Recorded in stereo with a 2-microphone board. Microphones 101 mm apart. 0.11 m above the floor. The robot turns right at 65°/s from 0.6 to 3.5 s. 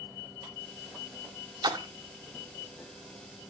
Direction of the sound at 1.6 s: 45° right (ahead or behind).